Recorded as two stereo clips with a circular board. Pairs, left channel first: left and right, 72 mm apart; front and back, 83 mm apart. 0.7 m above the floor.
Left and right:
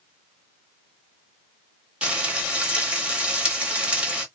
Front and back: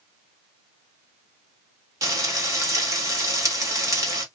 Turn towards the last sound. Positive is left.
turn(degrees=-160)